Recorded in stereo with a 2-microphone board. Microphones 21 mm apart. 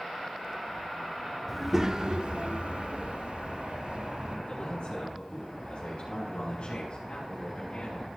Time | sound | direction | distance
1.5 | a child speaking | 5° right (ahead or behind) | 0.7 m
4.5 | a man speaking | 60° left (ahead or behind) | 6 m